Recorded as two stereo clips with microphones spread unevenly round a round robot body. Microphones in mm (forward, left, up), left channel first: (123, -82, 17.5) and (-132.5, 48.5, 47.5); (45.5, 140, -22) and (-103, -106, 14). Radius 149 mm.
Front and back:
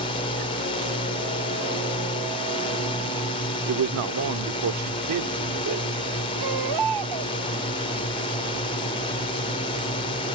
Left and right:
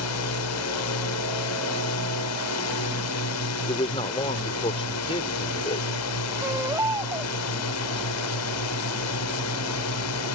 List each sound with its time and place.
0.0 s a drone: 40° left
3.7 s a man speaking: 125° left
6.4 s a baby crying: 160° left